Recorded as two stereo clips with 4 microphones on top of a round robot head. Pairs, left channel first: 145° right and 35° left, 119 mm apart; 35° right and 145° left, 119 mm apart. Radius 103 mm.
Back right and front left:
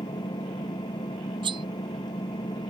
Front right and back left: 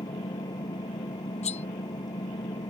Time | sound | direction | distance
0.0 | an engine running | 90° right | ?
1.4 | cutlery clinking | 10° right | ?